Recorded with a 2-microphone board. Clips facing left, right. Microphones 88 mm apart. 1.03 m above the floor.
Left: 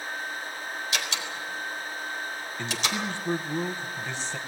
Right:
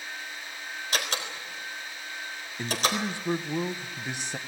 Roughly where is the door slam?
Right.